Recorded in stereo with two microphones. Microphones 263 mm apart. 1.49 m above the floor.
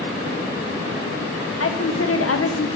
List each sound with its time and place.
1.6 s a woman speaking: 60° left (ahead or behind), 0.7 m